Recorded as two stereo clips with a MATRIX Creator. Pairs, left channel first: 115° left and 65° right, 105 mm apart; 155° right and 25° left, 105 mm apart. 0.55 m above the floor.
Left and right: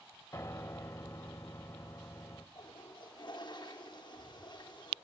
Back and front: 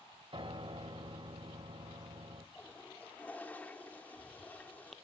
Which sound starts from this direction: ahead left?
A piano, at 0.3 s.